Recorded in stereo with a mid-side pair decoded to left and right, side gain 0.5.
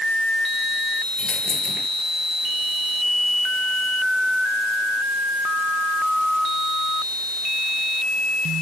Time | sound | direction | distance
1.2 | a dropped coin | 35° left | ?